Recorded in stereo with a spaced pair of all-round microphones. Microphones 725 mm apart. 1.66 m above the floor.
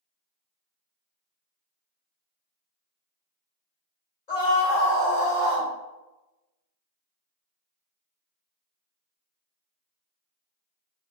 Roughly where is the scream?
Left.